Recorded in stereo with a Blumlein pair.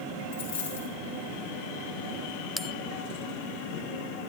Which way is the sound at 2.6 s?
10° left.